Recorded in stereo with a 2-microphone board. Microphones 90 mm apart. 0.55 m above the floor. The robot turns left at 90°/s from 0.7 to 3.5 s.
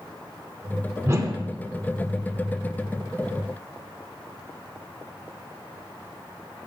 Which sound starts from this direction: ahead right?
A whoosh, at 1.1 s.